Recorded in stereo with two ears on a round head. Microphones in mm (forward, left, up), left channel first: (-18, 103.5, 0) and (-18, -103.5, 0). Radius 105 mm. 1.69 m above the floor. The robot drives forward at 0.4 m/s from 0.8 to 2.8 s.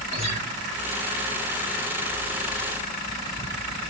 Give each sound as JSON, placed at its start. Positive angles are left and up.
{"t": 0.1, "sound": "a guitar", "side_deg": -30, "distance_m": 5.5}